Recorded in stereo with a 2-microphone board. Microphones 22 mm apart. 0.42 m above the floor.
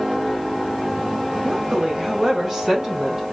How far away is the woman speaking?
About 1.9 m.